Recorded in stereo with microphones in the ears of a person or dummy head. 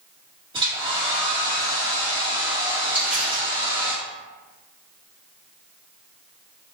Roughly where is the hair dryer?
Right.